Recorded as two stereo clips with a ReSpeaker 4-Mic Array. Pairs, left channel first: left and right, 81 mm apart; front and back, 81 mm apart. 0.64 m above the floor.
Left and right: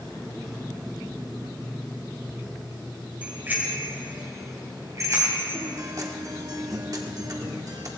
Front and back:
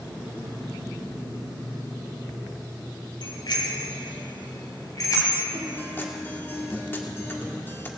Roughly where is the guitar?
Ahead right.